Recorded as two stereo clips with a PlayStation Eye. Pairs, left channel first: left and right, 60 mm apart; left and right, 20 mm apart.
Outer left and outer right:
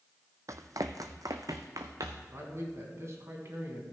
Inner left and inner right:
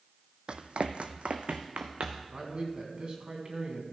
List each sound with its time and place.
0.5 s running footsteps: 60° right (ahead or behind), 0.6 m; by 2.2 s 65° right (ahead or behind), 1.4 m
2.3 s a man speaking: 50° right (ahead or behind), 2.5 m